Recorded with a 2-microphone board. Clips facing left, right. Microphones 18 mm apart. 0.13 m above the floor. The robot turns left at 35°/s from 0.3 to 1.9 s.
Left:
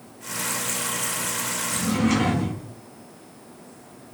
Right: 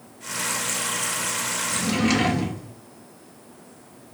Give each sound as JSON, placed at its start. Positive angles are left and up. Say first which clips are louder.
{"t": 1.7, "sound": "a drawer", "louder": "even", "side_deg": -65, "distance_m": 0.6}